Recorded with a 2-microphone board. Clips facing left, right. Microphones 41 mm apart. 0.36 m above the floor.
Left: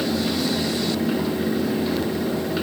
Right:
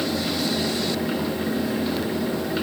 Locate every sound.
Only background noise.